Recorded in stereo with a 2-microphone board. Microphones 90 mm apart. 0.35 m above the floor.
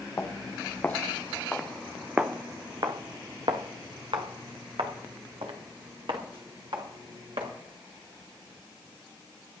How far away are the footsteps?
About 3 m.